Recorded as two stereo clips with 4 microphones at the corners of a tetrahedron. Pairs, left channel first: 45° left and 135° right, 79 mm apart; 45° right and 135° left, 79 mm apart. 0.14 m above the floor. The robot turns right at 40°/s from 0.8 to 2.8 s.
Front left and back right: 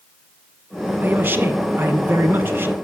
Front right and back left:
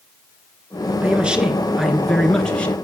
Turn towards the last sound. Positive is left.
turn(degrees=-100)